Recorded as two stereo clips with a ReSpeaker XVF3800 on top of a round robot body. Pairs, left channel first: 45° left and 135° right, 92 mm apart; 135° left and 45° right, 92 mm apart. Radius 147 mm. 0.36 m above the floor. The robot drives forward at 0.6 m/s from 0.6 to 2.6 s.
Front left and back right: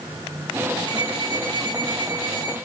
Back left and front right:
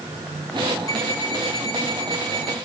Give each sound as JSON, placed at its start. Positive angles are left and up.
{"t": 0.9, "sound": "an alarm clock", "azimuth_deg": -175, "distance_m": 2.5}